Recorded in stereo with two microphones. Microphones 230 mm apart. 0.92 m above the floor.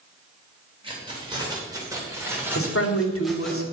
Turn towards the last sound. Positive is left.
turn(degrees=70)  # may be behind; listen again after turning